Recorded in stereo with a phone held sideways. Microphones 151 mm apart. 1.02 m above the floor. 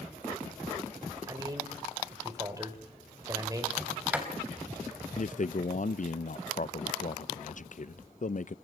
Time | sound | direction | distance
1.3 | a man speaking | 25° right (ahead or behind) | 4 m
3.8 | a sliding door | 10° right (ahead or behind) | 3 m
5.2 | a man speaking | 55° left (ahead or behind) | 0.5 m